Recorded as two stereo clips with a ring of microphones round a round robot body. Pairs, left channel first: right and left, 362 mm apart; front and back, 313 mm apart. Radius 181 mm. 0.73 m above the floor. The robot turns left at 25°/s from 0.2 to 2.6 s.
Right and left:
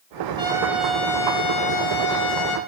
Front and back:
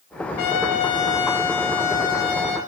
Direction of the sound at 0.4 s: 15° left.